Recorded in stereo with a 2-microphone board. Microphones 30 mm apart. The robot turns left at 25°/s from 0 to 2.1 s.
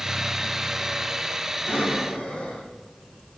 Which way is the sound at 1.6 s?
75° left (ahead or behind).